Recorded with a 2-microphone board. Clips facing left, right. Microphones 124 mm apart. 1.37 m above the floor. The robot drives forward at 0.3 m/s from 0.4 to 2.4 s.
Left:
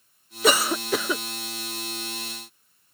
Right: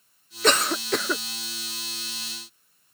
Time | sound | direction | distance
0.4 | a cough | 5° left (ahead or behind) | ?